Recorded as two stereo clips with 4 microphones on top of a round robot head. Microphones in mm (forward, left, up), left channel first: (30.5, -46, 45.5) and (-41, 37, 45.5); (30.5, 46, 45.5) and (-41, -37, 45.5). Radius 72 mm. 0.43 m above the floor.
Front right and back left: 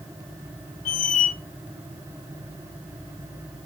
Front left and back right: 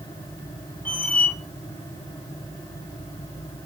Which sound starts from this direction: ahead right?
A squeak, at 0.8 s.